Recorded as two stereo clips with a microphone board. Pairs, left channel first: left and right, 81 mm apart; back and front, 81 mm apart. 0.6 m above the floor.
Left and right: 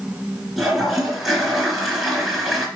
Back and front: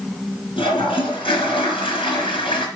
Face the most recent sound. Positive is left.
turn(degrees=-175)